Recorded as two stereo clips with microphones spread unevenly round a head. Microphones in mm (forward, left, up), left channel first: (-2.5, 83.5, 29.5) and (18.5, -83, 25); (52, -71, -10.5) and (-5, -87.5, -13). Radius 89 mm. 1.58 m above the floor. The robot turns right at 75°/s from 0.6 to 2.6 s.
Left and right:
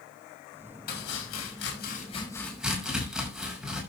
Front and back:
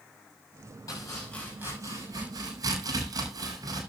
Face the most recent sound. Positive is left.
turn(degrees=-170)